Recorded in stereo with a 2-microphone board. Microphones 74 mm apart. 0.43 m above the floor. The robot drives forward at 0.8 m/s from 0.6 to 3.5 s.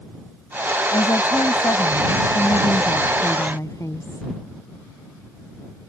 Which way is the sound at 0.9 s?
70° left (ahead or behind).